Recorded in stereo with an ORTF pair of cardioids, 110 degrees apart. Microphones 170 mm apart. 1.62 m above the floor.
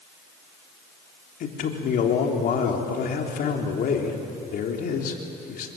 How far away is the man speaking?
About 3.5 m.